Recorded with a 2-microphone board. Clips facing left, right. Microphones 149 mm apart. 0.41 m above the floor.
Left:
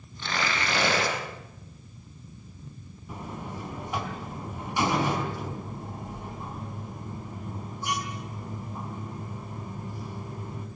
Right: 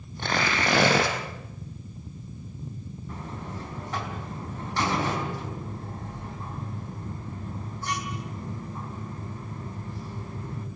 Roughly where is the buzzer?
Centre.